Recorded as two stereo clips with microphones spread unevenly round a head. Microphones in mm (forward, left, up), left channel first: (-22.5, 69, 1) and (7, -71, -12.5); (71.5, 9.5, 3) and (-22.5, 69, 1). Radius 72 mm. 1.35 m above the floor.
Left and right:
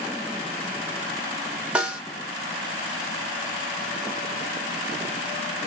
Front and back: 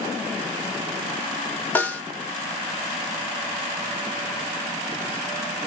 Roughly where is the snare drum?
Ahead.